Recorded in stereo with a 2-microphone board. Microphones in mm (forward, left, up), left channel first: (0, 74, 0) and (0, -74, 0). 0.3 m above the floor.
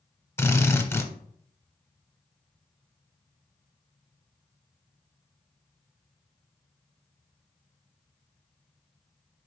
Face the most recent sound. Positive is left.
turn(degrees=15)  # may be behind; listen again after turning